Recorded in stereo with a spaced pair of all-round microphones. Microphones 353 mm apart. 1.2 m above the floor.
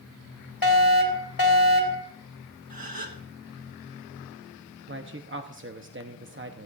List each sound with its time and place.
0.6 s a fire alarm: 65° left (ahead or behind), 3 m
2.7 s a gasp: 70° right (ahead or behind), 1.2 m
4.9 s a man speaking: 35° right (ahead or behind), 0.8 m